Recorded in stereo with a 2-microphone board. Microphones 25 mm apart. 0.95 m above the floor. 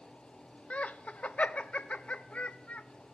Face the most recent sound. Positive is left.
turn(degrees=75)  # may be behind; listen again after turning